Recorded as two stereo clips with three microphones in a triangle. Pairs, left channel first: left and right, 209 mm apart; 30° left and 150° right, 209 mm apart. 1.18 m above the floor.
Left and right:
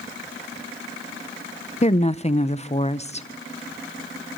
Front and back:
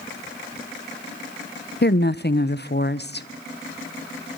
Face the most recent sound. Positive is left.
turn(degrees=40)